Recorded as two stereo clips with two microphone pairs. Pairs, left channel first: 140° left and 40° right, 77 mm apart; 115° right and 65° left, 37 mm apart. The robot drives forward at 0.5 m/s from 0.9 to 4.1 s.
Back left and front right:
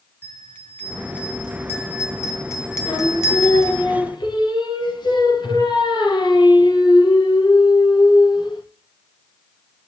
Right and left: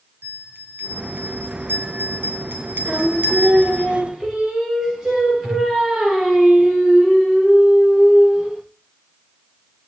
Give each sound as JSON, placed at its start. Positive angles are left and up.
{"t": 0.2, "sound": "a bell", "azimuth_deg": 75, "distance_m": 3.5}
{"t": 2.9, "sound": "singing", "azimuth_deg": 140, "distance_m": 4.0}